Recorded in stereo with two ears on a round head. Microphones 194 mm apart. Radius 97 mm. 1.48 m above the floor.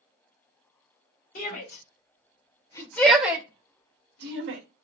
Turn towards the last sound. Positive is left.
turn(degrees=-60)  # may be behind; listen again after turning